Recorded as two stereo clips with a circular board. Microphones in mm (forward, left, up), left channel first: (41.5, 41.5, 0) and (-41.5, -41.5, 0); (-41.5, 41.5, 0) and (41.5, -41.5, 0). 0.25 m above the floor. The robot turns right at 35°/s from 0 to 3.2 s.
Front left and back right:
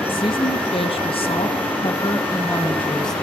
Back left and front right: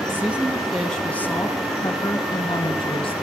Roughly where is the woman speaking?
Ahead.